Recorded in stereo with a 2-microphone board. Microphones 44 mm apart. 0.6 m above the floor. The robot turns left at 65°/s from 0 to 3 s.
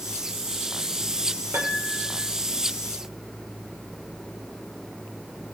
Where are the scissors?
No scissors in this recording.